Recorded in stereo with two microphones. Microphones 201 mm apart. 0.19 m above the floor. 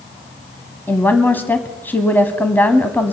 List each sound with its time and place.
0.9 s a woman speaking: 10° left (ahead or behind), 1.1 m